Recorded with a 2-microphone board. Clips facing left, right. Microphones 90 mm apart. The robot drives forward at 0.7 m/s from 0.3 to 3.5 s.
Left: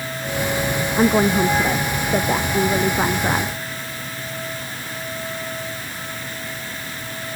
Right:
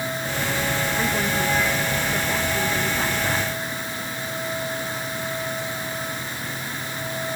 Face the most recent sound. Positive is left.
turn(degrees=35)  # may be behind; listen again after turning